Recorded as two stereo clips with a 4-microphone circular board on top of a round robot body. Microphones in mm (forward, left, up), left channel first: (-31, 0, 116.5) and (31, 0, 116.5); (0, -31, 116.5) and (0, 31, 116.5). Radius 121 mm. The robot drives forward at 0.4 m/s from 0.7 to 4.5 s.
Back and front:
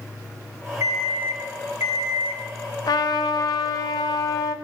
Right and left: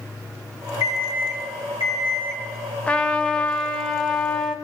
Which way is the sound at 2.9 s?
165° right.